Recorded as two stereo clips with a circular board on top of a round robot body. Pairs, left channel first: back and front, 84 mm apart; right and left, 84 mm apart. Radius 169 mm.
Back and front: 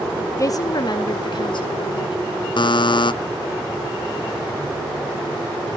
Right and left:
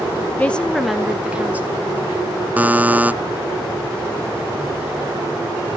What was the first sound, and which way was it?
A woman speaking, 155° right.